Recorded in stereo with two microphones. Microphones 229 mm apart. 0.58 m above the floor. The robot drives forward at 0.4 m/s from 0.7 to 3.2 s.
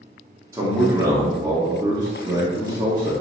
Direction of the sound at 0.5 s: 15° right (ahead or behind).